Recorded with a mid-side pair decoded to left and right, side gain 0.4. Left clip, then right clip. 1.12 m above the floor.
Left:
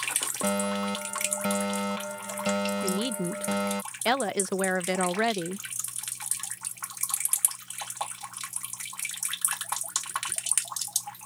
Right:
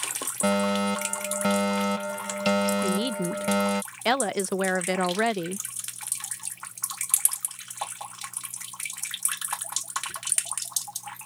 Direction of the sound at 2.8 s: 10° right.